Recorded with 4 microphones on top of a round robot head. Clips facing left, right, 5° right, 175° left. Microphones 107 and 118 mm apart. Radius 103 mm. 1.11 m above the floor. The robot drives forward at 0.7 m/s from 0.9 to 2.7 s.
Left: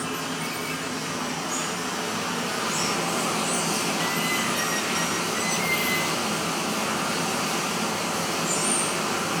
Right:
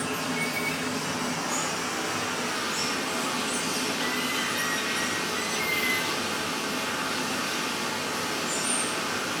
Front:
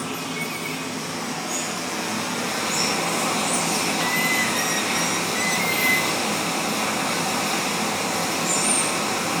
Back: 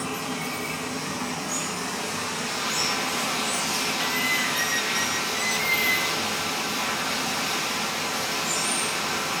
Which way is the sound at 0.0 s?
10° left.